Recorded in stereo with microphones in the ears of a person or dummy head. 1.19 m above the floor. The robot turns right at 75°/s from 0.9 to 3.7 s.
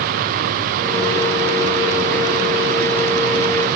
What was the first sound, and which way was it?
Only background noise.